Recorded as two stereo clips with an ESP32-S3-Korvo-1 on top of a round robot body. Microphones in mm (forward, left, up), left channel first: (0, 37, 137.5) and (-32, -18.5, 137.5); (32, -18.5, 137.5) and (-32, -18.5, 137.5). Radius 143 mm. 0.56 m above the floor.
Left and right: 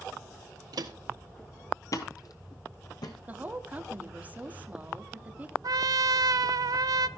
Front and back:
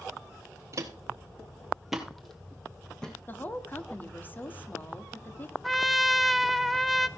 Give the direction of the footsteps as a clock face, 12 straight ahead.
5 o'clock.